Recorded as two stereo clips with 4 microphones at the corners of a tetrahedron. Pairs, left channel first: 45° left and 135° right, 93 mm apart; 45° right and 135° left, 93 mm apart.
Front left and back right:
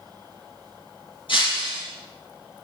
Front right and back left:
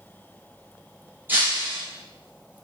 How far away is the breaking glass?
About 4 m.